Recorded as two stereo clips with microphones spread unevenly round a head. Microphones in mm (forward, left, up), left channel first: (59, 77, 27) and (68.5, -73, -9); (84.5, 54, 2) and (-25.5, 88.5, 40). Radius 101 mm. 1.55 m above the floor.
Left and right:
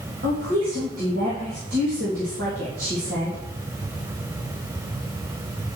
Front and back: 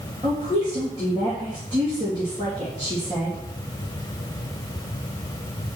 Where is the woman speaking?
130° right, 3 m.